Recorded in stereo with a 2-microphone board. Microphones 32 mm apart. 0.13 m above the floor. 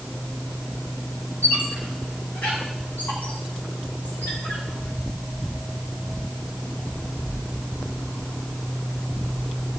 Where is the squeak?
65° left (ahead or behind), 4.5 m.